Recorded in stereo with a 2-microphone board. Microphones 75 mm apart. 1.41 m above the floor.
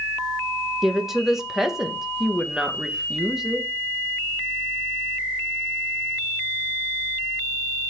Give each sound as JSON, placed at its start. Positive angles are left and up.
{"t": 0.8, "sound": "a woman speaking", "side_deg": -5, "distance_m": 1.6}